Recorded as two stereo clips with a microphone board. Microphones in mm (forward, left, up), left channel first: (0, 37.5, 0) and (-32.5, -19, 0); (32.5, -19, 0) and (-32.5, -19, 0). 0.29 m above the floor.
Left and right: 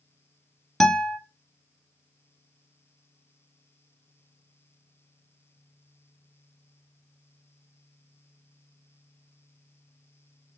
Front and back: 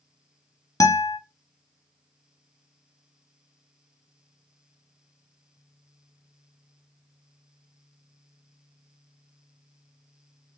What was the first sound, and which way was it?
A guitar, 25° right.